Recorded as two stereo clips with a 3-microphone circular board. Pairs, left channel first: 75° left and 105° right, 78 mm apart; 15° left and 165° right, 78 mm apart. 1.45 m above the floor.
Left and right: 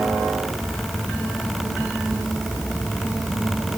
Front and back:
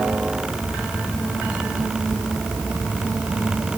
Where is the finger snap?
I don't hear a finger snap.